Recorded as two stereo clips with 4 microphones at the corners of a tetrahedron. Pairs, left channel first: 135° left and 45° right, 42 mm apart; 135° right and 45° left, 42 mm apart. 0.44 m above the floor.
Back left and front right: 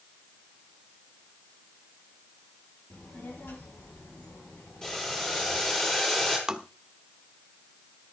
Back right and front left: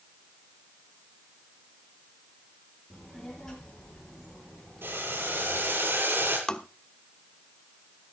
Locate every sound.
2.9 s a child speaking: 150° left, 8.5 m
4.8 s boiling: 60° left, 8 m
6.5 s tapping: 90° right, 1.0 m